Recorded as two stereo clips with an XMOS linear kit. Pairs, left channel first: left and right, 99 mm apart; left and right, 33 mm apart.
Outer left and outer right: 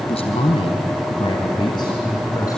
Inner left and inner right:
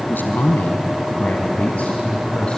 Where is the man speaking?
75° left (ahead or behind), 3 m; by 2.6 s 35° left (ahead or behind), 4.5 m.